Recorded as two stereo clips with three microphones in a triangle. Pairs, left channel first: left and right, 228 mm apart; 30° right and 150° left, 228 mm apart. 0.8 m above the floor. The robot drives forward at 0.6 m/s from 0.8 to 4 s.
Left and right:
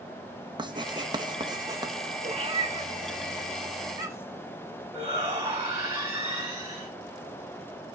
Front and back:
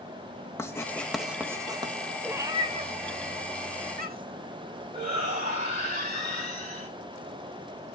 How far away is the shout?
About 3 m.